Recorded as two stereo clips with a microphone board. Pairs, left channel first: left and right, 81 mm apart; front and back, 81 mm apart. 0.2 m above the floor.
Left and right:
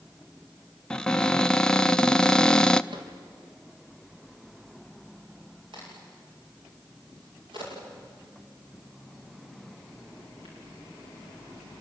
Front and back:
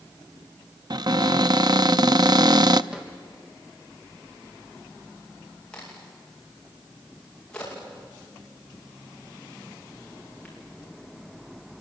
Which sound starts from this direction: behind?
A cupboard door, at 0.9 s.